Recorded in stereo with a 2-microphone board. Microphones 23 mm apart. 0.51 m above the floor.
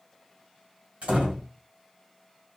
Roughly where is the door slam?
Right.